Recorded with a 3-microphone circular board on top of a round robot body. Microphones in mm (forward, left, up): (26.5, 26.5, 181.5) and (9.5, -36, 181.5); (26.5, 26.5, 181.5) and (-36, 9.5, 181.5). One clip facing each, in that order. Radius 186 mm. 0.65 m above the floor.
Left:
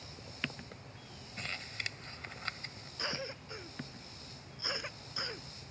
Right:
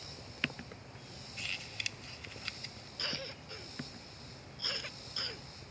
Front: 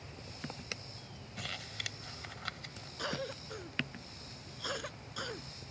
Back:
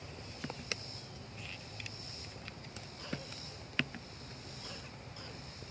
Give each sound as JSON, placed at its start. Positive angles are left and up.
{"t": 1.4, "sound": "crumpling", "azimuth_deg": 25}
{"t": 3.0, "sound": "a cough", "azimuth_deg": 5}